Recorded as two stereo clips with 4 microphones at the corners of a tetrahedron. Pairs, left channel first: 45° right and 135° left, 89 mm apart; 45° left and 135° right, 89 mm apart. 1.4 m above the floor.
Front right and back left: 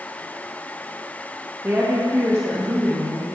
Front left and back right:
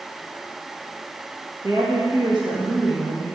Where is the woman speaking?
170° right, 1.7 m.